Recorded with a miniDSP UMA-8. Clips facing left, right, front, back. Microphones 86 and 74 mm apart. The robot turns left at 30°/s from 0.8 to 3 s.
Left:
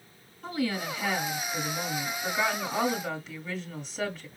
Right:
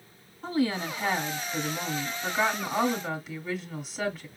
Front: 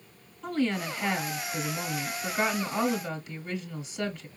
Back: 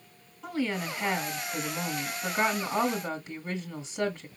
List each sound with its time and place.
0.4 s a woman speaking: 105° right, 1.6 m; by 4.3 s 175° right, 1.6 m